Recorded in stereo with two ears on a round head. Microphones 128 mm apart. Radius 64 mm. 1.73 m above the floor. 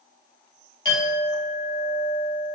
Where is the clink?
30° left (ahead or behind), 1.2 m.